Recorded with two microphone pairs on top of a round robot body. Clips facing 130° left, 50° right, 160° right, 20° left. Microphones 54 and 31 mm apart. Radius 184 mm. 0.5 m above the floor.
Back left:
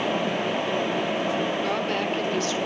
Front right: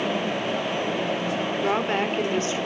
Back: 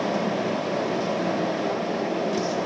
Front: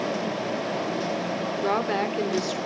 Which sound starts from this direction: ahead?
A woman speaking, at 1.6 s.